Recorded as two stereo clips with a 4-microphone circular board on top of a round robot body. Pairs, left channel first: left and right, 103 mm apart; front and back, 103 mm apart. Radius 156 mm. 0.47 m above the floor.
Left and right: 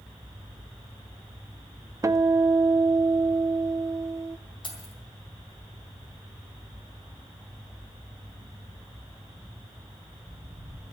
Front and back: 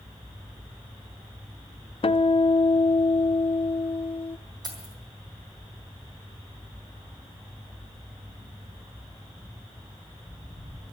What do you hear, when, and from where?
2.0 s a guitar: 30° right, 0.7 m
4.6 s keys jangling: 130° left, 3.5 m